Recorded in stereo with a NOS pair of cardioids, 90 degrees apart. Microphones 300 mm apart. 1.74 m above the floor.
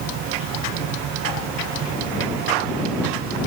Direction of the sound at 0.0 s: 65° right.